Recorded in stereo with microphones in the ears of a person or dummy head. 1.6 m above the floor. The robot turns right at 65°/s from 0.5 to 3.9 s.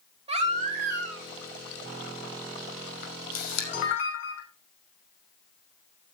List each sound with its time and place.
0.3 s a baby crying: 145° right, 2 m; by 1.3 s 95° right, 2 m
3.0 s a camera shutter: 60° left, 5 m; by 4.4 s 120° left, 5 m